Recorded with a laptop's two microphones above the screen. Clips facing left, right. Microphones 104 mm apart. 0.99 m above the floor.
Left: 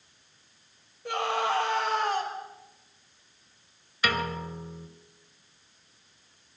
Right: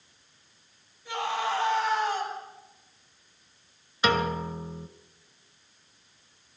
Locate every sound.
1.1 s a scream: 60° left (ahead or behind), 5.5 m
4.0 s a piano: 25° right (ahead or behind), 0.9 m